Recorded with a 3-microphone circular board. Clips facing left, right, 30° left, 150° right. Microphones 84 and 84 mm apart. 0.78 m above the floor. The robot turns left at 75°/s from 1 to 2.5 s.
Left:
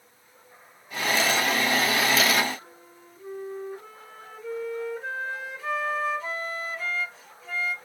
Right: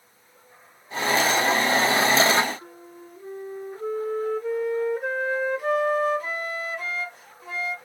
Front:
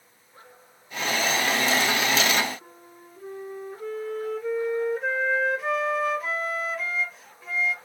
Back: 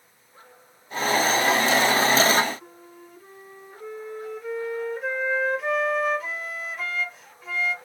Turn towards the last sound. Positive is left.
turn(degrees=-60)